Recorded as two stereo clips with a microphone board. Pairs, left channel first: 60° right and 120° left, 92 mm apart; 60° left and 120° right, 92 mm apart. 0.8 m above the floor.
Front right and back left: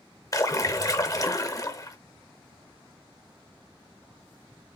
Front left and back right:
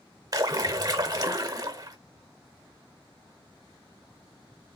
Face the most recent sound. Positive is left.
turn(degrees=-90)